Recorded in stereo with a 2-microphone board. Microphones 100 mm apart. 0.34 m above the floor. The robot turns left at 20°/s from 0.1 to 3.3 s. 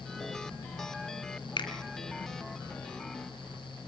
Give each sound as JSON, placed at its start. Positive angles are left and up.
{"t": 1.6, "sound": "a finger snap", "side_deg": 55, "distance_m": 2.5}